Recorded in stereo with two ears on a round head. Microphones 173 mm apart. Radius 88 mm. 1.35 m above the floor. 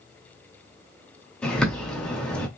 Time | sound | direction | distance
1.4 | a bird | 5° left (ahead or behind) | 1.3 m